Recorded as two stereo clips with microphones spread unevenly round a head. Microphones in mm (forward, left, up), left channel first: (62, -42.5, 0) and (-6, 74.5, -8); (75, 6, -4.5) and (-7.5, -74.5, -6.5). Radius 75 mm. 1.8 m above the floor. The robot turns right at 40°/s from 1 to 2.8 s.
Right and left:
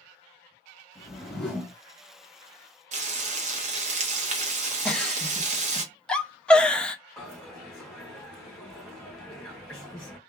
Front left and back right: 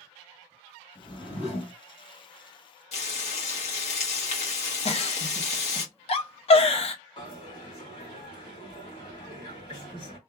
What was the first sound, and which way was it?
A whoosh, 15° left.